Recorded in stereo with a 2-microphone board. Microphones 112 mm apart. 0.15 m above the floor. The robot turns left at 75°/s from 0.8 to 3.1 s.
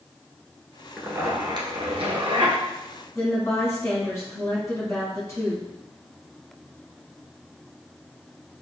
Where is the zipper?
5° right, 1.1 m; by 2.6 s 130° right, 1.1 m.